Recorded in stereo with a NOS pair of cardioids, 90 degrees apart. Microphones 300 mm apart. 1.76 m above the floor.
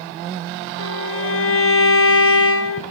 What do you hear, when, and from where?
0.8 s a violin: 45° left, 1.4 m